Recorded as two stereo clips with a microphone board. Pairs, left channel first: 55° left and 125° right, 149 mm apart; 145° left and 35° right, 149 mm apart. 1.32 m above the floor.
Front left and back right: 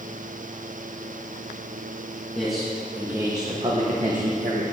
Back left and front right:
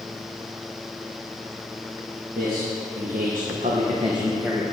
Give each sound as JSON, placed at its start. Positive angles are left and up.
{"t": 2.4, "sound": "a man speaking", "azimuth_deg": -30, "distance_m": 1.5}